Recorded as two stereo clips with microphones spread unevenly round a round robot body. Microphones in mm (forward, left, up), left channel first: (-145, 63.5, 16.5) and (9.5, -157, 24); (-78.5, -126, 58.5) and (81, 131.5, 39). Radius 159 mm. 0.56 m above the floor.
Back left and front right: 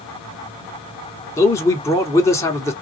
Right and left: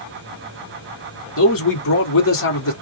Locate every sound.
1.4 s a man speaking: 160° right, 1.8 m